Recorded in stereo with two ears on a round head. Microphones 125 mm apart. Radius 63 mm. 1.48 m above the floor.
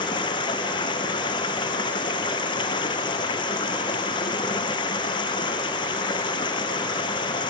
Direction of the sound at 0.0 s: 35° left (ahead or behind).